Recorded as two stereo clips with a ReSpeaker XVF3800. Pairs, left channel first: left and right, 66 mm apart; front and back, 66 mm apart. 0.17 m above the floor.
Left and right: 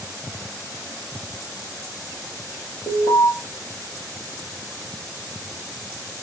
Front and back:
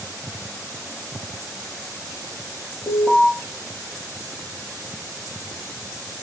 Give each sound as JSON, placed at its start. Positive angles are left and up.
{"t": 2.9, "sound": "an alarm", "azimuth_deg": 55, "distance_m": 4.5}